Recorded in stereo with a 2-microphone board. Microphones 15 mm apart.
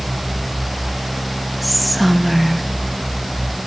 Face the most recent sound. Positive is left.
turn(degrees=0)  # may be behind; listen again after turning